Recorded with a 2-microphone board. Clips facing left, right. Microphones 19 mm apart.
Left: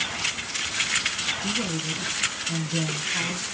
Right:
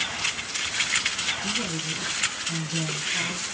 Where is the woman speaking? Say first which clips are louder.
Left 1 dB; 25° left (ahead or behind), 3 m.